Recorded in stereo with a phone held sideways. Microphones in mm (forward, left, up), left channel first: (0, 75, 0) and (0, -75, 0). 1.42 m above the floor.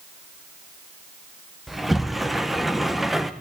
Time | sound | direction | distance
1.7 | a sliding door | centre (ahead or behind) | 1.3 m